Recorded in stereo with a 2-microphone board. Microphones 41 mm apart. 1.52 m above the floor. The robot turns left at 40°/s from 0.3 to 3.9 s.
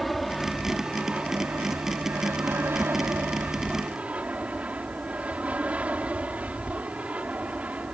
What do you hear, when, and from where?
0.0 s an aircraft: centre (ahead or behind); by 7.9 s 35° right (ahead or behind)